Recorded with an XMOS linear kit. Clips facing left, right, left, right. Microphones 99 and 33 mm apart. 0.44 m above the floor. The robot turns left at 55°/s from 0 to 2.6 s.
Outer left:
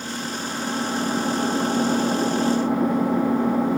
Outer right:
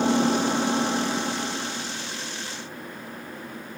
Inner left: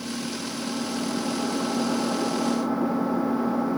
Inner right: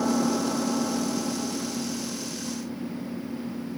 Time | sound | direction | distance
0.0 | an engine running | 125° right | ?